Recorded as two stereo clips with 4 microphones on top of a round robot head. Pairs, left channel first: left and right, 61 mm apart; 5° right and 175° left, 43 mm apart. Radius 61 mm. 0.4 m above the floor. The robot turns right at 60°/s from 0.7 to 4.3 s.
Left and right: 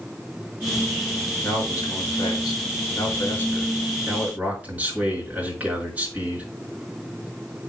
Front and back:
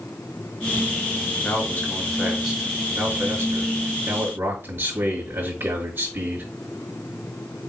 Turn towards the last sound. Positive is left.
turn(degrees=-155)